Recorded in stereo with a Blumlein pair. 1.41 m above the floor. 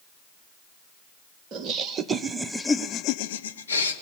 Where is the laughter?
30° right, 0.9 m; by 3.9 s 80° left, 0.7 m.